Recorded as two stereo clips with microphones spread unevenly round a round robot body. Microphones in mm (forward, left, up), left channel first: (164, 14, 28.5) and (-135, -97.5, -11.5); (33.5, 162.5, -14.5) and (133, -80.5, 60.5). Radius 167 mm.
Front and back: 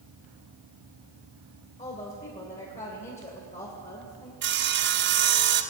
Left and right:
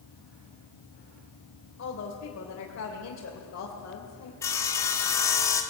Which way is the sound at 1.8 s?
95° left.